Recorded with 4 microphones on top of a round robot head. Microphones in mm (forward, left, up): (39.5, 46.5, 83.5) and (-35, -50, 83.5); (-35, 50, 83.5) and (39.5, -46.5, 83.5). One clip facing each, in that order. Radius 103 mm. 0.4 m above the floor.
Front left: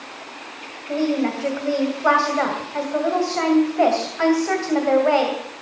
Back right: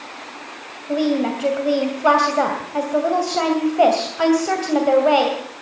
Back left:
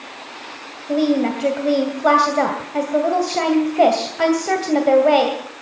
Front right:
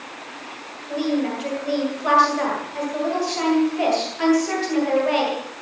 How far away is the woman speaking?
About 2.5 m.